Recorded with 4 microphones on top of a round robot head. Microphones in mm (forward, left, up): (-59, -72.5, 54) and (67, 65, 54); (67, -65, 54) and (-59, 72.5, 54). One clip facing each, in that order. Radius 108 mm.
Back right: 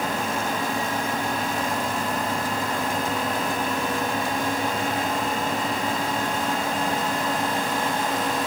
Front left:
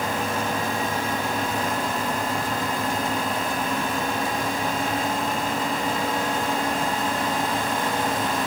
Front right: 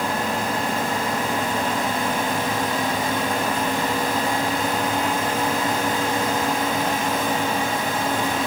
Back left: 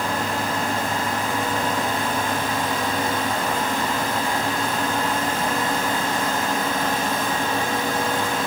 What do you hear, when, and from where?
Only background noise.